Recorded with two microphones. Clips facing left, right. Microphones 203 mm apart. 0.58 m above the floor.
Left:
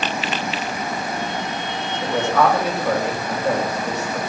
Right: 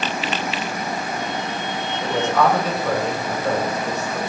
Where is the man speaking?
Centre (ahead or behind), 3 m.